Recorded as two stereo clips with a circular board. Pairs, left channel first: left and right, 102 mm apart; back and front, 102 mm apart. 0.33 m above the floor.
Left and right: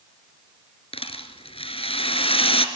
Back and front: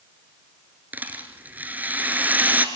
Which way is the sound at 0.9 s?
75° left.